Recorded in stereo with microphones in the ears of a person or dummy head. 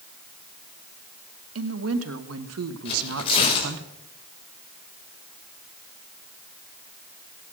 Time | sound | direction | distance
1.6 | a woman speaking | 75° right (ahead or behind) | 1.8 m
2.9 | tearing paper | 35° left (ahead or behind) | 5.5 m